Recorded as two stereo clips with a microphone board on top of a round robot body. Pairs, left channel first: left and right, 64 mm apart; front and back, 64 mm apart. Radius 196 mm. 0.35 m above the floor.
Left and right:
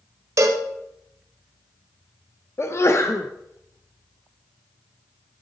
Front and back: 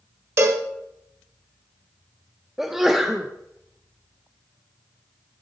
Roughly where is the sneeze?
Left.